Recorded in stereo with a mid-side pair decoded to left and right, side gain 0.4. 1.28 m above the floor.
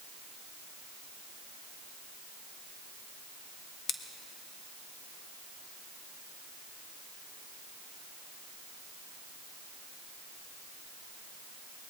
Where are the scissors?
60° left, 1.0 m.